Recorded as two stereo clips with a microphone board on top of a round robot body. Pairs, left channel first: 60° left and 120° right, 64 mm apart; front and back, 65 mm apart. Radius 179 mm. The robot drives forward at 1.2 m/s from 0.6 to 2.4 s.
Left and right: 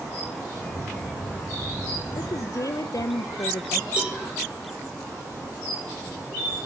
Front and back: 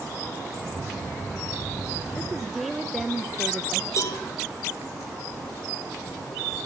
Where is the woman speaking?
65° left, 0.7 m; by 3.9 s 90° left, 0.7 m.